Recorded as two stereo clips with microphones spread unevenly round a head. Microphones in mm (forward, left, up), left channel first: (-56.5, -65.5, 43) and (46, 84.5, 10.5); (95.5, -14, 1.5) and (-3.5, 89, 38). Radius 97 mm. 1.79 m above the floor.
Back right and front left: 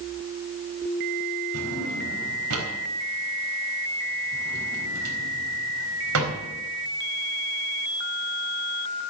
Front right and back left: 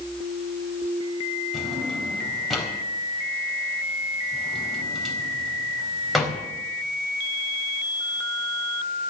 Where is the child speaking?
I don't hear a child speaking.